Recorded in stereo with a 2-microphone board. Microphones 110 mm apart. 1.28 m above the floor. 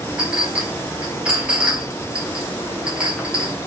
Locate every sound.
0.2 s a clink: 10° right (ahead or behind), 0.6 m